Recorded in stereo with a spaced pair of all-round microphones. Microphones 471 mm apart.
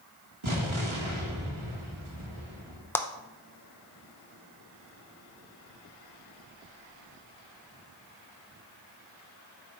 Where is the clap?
5° left (ahead or behind), 0.7 m.